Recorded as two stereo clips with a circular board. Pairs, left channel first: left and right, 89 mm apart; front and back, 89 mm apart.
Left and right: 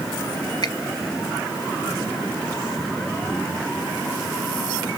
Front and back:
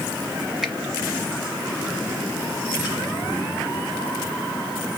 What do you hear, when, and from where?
0.6 s a finger snap: 100° left, 1.1 m